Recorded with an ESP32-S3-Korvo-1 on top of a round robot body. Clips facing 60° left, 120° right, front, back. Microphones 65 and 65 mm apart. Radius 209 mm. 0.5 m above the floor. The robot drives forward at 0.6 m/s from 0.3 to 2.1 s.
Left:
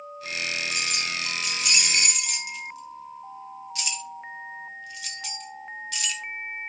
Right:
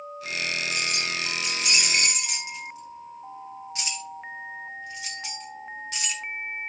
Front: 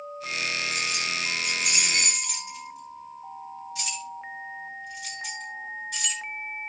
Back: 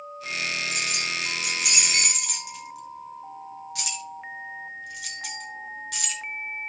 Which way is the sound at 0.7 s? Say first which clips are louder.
Right 1 dB, even; straight behind.